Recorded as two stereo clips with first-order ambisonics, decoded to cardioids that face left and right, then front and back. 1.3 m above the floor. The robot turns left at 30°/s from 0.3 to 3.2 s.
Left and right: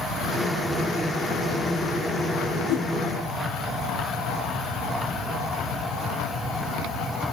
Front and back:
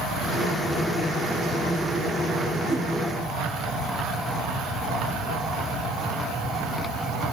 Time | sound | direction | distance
2.7 | a whoosh | 95° left | 0.9 m